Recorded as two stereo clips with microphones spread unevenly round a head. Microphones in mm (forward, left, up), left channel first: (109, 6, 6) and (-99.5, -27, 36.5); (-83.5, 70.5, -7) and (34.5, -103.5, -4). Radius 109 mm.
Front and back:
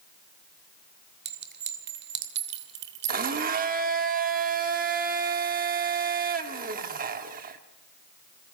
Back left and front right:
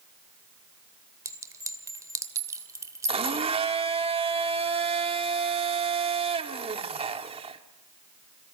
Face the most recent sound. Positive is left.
turn(degrees=-120)